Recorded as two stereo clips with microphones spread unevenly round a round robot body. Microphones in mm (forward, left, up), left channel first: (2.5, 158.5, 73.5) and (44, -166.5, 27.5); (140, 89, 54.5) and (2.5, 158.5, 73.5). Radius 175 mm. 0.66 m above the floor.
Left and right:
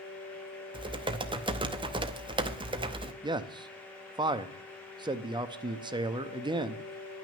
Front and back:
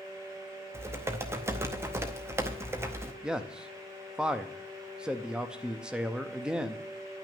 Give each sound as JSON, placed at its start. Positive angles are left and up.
{"t": 0.7, "sound": "typing on a keyboard", "azimuth_deg": -135, "distance_m": 0.7}
{"t": 3.2, "sound": "a man speaking", "azimuth_deg": -115, "distance_m": 0.6}